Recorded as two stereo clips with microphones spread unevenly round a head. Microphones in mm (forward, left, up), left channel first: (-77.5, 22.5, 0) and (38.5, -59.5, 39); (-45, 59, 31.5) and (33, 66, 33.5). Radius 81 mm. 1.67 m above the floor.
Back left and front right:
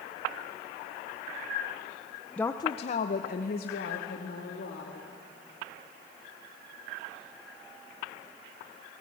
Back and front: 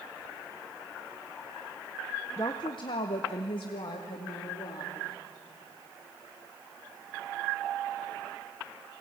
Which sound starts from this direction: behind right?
A woman speaking, at 2.4 s.